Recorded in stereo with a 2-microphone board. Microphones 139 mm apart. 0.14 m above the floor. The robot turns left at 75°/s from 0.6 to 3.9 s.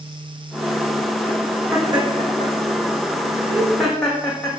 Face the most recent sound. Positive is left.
turn(degrees=5)  # may be behind; listen again after turning